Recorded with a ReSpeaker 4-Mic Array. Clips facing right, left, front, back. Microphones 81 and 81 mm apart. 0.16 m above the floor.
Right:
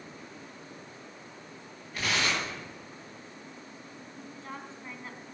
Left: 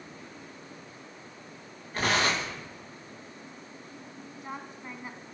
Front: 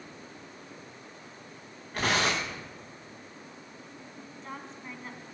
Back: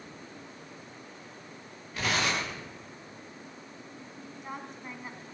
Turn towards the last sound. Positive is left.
turn(degrees=120)